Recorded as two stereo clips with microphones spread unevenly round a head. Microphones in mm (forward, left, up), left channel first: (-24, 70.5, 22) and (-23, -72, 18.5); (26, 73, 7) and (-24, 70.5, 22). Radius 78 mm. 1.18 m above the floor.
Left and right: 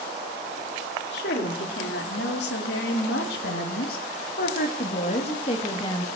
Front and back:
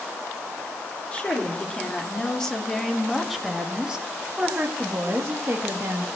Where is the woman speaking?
65° left, 3 m; by 6.1 s 155° left, 1.9 m.